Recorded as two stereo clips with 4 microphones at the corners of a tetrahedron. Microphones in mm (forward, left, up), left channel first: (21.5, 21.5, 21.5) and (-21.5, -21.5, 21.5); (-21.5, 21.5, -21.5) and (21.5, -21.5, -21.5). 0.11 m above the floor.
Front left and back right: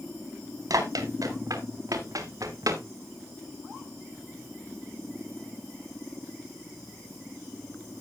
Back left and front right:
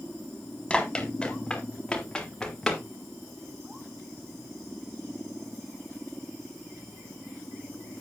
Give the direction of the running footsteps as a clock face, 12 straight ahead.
5 o'clock.